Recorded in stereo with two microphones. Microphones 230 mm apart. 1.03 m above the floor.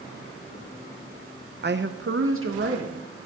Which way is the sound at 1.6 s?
45° right (ahead or behind).